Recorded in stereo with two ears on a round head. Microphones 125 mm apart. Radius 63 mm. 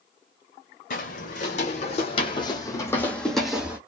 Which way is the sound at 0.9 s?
65° left (ahead or behind).